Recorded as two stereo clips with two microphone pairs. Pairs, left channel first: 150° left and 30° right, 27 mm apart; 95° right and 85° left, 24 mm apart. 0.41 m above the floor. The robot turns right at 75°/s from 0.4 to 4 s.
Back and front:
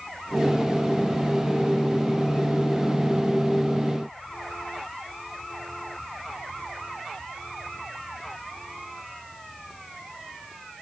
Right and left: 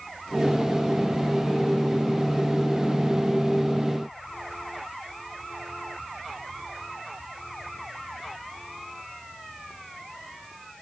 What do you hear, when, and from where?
Only background noise.